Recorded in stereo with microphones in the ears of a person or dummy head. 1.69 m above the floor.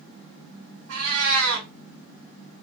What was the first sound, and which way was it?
A cat meowing, 60° right (ahead or behind).